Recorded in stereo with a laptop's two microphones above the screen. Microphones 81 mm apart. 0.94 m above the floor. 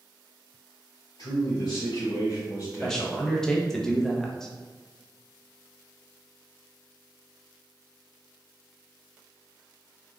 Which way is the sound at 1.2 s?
65° left (ahead or behind).